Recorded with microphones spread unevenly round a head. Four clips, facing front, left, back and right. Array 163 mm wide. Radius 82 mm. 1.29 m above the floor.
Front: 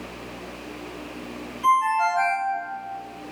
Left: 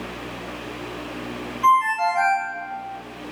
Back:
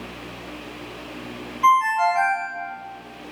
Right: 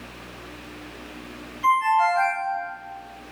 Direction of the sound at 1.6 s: 165° left.